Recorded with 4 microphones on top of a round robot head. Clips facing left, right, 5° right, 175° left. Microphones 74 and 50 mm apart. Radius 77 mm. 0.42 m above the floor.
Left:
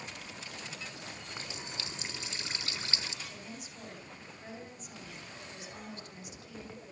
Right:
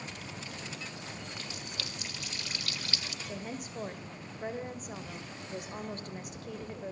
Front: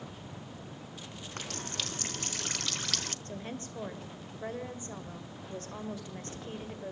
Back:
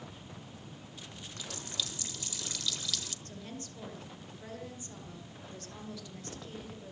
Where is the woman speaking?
60° right, 2 m.